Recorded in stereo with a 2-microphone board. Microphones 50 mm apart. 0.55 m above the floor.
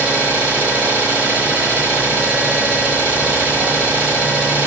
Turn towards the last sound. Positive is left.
turn(degrees=-30)  # may be behind; listen again after turning